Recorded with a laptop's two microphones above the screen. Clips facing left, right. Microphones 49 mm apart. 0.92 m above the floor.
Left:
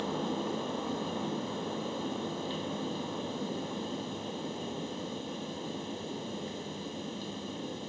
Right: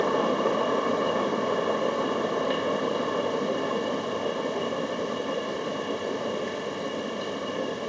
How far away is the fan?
About 1.1 m.